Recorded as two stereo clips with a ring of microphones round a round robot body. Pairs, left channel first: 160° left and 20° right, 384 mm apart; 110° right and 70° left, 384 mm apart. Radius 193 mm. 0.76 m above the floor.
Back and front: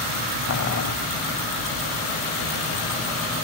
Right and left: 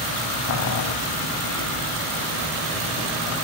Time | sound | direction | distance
0.5 | boiling | 155° right | 1.0 m